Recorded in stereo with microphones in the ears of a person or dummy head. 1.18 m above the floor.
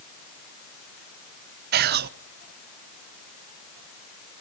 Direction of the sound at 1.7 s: 50° right (ahead or behind).